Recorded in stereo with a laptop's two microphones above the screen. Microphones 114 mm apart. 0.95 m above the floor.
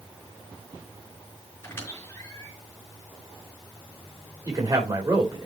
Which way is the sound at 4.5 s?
30° right (ahead or behind).